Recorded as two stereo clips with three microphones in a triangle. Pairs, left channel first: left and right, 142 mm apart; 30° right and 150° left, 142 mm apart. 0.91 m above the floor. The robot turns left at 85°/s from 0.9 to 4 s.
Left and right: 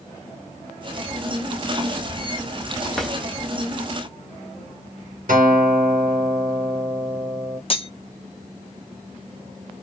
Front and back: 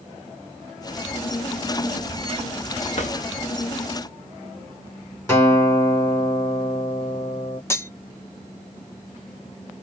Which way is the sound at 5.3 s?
100° right.